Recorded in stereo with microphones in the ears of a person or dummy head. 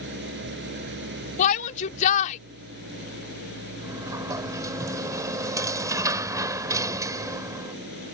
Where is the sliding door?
20° right (ahead or behind).